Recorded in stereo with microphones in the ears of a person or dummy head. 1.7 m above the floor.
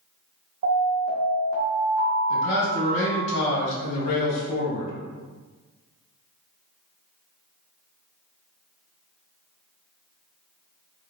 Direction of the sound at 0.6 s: 50° right (ahead or behind).